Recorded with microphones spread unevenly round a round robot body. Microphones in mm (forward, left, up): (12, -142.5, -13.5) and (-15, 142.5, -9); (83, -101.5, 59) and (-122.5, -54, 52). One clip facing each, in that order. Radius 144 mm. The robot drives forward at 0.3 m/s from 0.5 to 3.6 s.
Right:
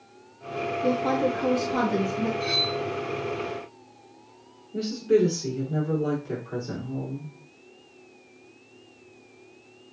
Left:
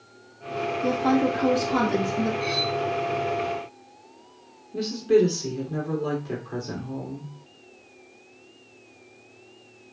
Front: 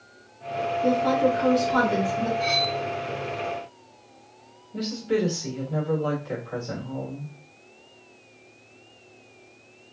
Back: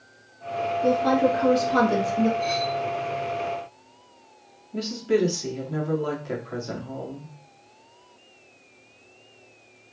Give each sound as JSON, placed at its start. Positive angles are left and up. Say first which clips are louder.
{"t": 0.8, "sound": "a woman speaking", "louder": "left 2 dB, back 1 dB", "azimuth_deg": 100, "distance_m": 0.8}
{"t": 2.4, "sound": "cutlery clinking", "louder": "left 1 dB, even", "azimuth_deg": -30, "distance_m": 1.2}
{"t": 4.7, "sound": "a woman speaking", "louder": "left 2 dB, back 2 dB", "azimuth_deg": 180, "distance_m": 1.5}